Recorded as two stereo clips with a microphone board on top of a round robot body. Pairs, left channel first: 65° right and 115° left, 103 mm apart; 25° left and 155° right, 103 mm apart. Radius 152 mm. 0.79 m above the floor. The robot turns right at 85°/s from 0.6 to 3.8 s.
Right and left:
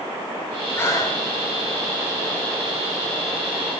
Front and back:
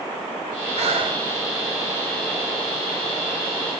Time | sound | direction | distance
0.8 | breathing | 140° right | 2 m